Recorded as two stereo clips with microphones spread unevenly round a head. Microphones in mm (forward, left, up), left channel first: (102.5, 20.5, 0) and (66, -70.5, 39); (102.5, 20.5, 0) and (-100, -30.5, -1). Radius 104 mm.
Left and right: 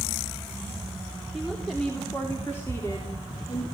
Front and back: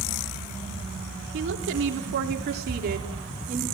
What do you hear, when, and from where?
1.3 s a woman speaking: 160° left, 3.5 m; by 3.6 s 135° left, 3.5 m